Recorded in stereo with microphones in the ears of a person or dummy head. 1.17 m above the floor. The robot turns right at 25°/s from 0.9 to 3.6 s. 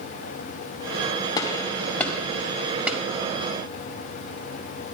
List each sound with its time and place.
1.4 s a gunshot: 25° left (ahead or behind), 1.6 m; by 3.0 s 10° right (ahead or behind), 1.6 m